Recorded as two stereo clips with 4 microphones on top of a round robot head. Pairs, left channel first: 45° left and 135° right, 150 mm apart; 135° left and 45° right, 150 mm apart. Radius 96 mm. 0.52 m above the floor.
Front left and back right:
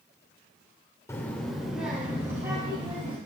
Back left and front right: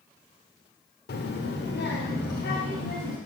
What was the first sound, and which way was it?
A child speaking, 120° left.